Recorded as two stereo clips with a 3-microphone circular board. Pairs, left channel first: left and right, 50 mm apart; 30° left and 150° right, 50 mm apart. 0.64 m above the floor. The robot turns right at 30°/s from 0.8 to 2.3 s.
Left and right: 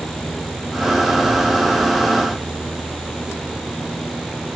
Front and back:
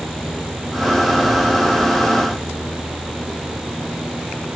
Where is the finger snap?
No finger snap in this recording.